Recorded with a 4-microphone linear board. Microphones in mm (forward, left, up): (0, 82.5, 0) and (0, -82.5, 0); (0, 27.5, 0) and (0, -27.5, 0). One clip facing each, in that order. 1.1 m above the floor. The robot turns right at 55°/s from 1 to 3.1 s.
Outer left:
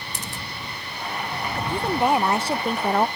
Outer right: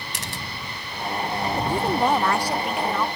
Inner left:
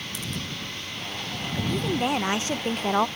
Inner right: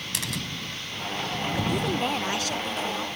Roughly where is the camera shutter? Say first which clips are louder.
Outer right 1 dB, inner right 2 dB; right.